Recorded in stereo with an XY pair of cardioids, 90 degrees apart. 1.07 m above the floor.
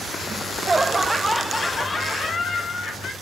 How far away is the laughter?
About 1.4 m.